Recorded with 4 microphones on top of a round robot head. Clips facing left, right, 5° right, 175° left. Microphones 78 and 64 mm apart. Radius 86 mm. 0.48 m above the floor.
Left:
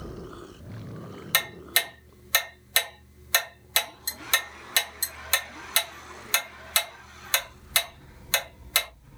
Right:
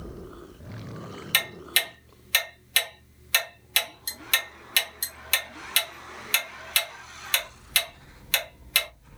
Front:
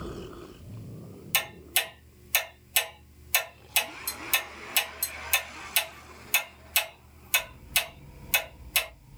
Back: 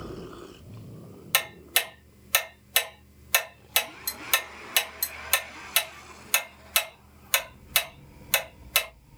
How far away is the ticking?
About 1.2 m.